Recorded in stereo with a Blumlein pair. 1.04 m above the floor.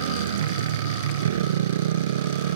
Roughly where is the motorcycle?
Ahead right.